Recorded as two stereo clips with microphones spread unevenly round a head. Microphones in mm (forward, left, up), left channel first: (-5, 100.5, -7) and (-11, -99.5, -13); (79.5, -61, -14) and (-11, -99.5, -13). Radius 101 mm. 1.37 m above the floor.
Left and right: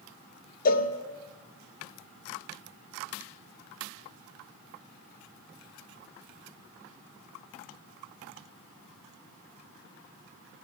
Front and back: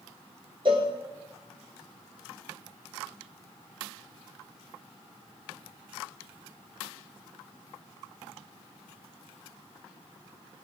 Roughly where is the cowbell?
Behind left.